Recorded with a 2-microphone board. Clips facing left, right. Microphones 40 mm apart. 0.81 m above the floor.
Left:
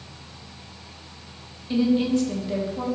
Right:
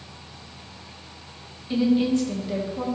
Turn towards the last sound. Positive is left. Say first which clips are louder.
# even
turn(degrees=0)  # may be behind; listen again after turning